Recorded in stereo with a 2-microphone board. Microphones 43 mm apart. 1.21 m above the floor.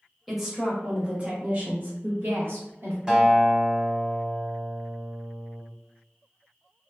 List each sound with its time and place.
0.3 s a woman speaking: centre (ahead or behind), 1.1 m; by 3.0 s 65° right (ahead or behind), 1.0 m
3.1 s a guitar: 15° right (ahead or behind), 1.1 m